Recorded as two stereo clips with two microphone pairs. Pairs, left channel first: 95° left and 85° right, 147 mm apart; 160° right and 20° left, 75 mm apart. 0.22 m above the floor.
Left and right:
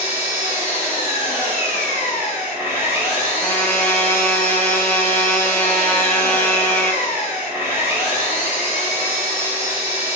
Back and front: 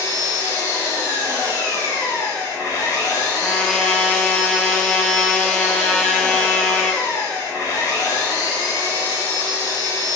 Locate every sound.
0.0 s an engine running: 155° right, 1.7 m
3.4 s a trumpet: 130° left, 0.6 m